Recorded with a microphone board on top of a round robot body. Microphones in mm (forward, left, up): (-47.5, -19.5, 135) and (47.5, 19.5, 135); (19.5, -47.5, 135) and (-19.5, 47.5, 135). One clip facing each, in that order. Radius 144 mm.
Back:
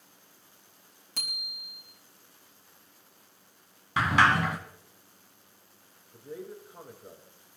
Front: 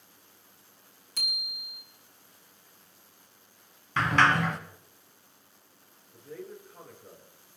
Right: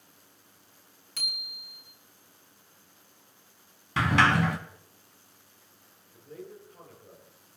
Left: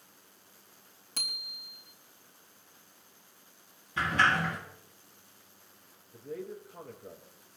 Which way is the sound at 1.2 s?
165° left.